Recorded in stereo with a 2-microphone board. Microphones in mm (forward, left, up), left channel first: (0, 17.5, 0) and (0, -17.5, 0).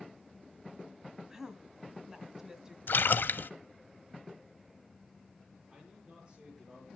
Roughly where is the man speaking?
Right.